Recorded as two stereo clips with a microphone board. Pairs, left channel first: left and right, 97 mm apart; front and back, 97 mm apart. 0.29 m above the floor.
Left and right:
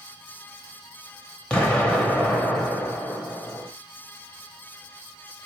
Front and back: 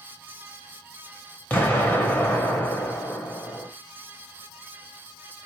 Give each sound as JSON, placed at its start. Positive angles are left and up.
{"t": 1.5, "sound": "an explosion", "azimuth_deg": 30, "distance_m": 0.8}